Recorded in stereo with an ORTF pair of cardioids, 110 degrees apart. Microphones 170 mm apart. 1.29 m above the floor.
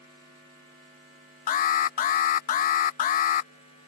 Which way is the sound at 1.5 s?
55° left.